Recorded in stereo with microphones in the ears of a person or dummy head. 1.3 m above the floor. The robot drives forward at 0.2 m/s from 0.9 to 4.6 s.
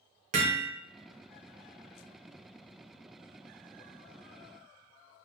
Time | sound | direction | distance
0.3 | hammering | 50° right (ahead or behind) | 0.7 m